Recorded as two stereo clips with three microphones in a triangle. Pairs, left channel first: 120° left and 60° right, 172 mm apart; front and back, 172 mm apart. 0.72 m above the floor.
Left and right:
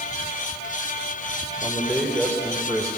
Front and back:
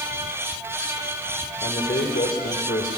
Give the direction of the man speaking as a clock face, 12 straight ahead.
11 o'clock.